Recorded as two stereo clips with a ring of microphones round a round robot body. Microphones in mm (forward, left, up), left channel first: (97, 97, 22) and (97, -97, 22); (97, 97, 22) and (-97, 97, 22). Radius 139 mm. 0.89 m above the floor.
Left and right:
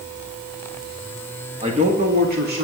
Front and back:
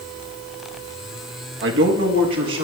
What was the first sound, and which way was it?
A man speaking, 160° right.